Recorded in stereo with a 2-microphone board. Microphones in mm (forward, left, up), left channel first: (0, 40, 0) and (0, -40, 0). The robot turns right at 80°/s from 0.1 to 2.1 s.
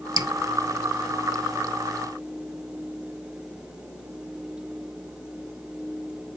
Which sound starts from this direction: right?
Dripping, at 0.2 s.